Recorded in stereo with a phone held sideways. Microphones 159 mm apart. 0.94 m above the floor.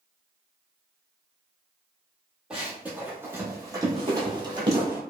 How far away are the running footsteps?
About 1.2 m.